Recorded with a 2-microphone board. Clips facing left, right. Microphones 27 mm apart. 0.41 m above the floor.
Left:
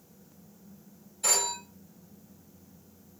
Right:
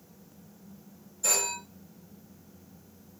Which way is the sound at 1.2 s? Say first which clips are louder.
Left 1 dB; 65° left (ahead or behind).